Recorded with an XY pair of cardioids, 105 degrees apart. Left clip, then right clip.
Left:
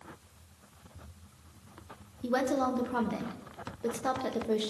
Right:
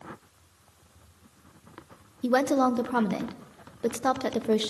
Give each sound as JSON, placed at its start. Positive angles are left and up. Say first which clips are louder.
{"t": 2.2, "sound": "a woman speaking", "louder": "right 6 dB", "azimuth_deg": -45, "distance_m": 1.2}